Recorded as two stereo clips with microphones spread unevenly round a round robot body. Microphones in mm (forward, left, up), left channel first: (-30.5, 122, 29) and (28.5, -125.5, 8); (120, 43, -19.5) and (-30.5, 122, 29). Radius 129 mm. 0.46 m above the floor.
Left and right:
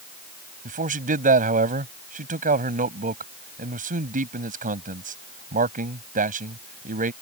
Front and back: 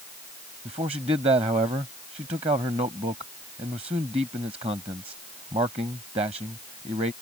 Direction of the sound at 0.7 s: 135° right.